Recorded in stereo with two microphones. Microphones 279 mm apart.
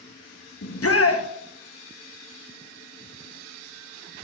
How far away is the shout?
About 0.6 m.